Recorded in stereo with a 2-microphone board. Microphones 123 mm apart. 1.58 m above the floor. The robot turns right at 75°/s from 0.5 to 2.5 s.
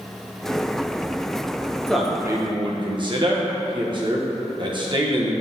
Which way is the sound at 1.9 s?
175° left.